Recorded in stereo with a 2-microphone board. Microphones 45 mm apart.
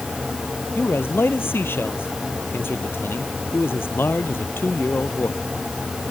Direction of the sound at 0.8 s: 55° left (ahead or behind).